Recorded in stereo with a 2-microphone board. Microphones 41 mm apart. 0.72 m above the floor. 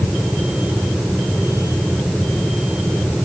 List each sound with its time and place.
Only background noise.